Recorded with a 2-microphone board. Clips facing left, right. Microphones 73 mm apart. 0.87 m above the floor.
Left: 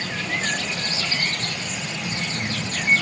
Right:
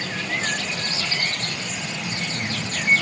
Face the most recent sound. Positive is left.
No sound to turn to.